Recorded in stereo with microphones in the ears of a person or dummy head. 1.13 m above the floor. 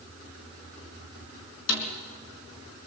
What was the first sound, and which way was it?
A snare drum, 65° left (ahead or behind).